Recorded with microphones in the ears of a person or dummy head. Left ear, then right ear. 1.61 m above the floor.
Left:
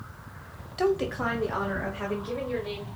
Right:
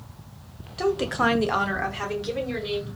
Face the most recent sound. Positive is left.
turn(degrees=-85)